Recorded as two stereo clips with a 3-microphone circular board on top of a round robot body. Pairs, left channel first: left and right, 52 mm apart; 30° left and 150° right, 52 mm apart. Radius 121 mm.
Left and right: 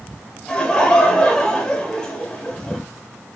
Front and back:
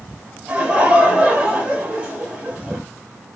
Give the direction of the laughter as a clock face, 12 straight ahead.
7 o'clock.